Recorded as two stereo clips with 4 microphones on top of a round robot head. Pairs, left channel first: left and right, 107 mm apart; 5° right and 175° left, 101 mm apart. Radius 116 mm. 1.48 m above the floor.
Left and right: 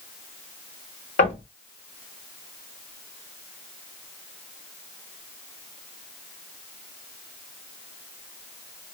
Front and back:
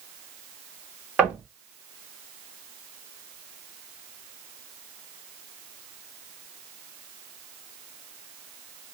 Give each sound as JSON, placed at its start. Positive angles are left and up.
{"t": 1.2, "sound": "knocking", "azimuth_deg": 95, "distance_m": 2.0}